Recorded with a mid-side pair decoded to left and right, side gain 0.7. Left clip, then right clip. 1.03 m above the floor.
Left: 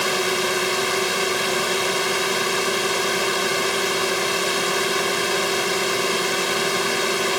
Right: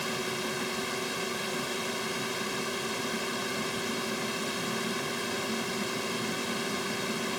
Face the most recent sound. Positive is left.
turn(degrees=45)